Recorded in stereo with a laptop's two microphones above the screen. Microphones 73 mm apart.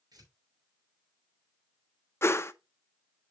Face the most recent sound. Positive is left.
turn(degrees=40)  # may be behind; listen again after turning